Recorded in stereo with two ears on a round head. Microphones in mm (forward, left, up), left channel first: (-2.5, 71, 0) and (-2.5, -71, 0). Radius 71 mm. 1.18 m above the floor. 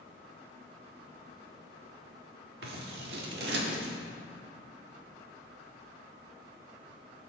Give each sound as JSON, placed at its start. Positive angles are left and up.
{"t": 2.6, "sound": "scissors", "side_deg": -75, "distance_m": 1.4}